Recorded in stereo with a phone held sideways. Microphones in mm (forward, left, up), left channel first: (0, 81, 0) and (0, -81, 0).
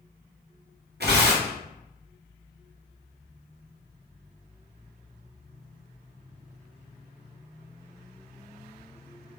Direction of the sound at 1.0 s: 75° right (ahead or behind).